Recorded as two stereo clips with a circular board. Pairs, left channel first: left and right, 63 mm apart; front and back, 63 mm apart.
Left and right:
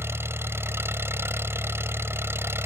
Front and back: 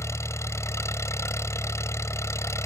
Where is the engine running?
40° right.